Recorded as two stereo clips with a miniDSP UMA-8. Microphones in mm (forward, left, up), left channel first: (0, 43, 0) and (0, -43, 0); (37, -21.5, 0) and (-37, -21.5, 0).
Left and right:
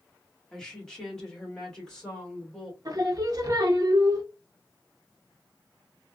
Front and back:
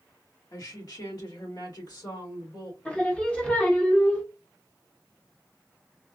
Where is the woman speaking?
5° left, 1.4 m.